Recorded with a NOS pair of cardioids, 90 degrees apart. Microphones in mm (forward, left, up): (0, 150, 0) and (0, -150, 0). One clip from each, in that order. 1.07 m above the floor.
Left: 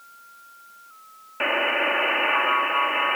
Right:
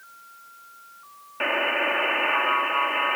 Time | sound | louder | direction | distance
1.4 | a buzzer | left 1 dB | 10° left | ?